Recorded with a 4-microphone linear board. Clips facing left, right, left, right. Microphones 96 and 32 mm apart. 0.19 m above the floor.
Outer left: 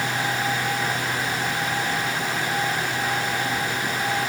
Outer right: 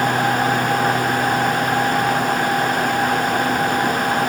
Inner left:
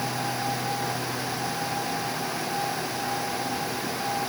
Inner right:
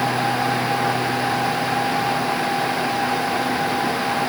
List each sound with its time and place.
Only background noise.